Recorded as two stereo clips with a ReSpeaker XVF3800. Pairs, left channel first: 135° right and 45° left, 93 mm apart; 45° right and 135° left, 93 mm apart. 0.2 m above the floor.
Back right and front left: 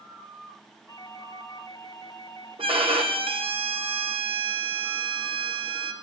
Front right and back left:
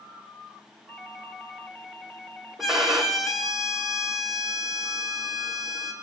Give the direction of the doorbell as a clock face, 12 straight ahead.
4 o'clock.